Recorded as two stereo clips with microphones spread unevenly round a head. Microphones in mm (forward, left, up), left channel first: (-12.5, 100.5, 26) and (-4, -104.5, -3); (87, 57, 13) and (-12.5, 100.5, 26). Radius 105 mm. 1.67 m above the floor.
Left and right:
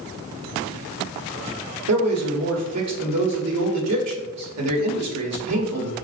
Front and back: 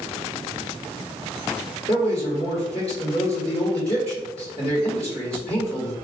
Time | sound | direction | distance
1.9 | a man speaking | 85° right | 1.1 m